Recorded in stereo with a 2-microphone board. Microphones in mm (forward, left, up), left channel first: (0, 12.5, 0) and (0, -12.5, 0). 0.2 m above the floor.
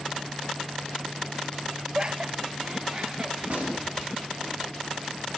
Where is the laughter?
30° right (ahead or behind), 1.1 m.